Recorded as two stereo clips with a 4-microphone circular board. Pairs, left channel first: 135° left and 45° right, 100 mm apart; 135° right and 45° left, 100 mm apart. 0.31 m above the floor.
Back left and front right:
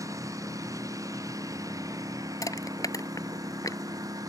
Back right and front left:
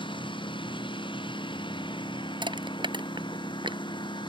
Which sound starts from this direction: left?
Crushing, at 2.4 s.